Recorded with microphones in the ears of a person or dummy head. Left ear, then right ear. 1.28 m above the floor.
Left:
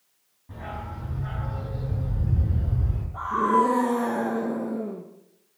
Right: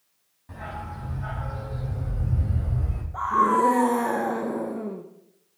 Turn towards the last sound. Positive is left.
turn(degrees=-25)  # may be behind; listen again after turning